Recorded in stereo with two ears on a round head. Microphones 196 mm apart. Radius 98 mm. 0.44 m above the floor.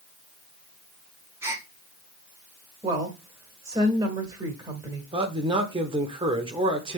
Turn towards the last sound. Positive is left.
turn(degrees=-25)  # may be behind; listen again after turning